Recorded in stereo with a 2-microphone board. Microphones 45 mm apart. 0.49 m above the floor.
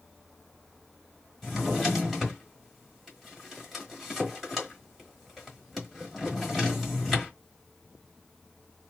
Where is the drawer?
Centre (ahead or behind), 1.4 m.